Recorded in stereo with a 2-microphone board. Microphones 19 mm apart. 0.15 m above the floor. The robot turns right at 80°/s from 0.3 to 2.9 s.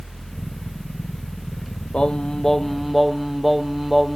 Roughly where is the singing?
Behind left.